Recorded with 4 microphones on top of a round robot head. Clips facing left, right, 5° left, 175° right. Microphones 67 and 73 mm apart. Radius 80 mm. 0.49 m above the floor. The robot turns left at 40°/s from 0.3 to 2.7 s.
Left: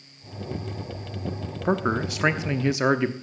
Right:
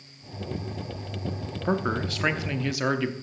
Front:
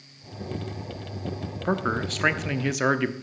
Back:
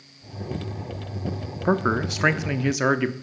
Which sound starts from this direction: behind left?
A man speaking, at 1.6 s.